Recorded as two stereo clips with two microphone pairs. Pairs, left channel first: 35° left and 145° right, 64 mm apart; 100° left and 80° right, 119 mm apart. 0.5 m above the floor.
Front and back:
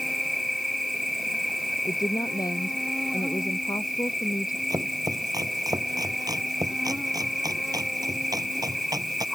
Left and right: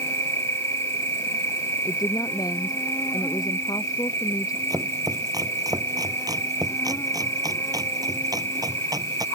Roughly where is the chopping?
Behind right.